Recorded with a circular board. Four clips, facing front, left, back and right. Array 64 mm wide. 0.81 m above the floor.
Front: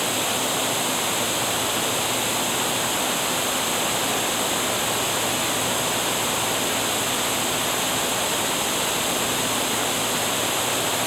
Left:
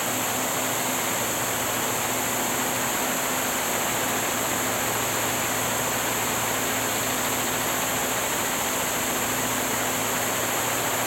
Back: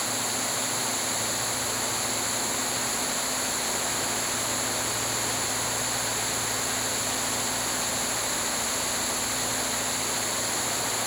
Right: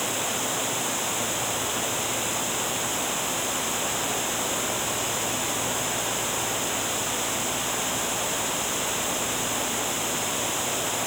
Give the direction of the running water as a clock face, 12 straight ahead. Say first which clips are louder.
Left 2 dB, front 6 dB; 12 o'clock.